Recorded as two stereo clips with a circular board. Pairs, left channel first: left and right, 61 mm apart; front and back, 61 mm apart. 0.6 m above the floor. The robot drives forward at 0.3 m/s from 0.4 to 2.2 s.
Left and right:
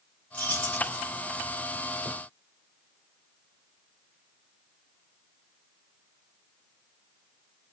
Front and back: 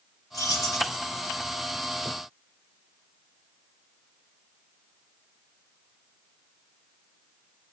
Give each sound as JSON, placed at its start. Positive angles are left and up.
{"t": 0.3, "sound": "keys jangling", "azimuth_deg": 20, "distance_m": 2.0}